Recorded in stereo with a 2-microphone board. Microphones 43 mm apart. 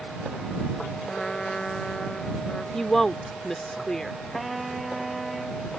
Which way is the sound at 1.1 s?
15° left (ahead or behind).